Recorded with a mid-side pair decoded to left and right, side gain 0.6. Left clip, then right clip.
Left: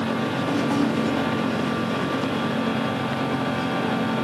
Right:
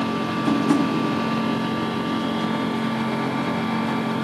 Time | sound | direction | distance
0.5 | tapping | 70° right | 1.1 m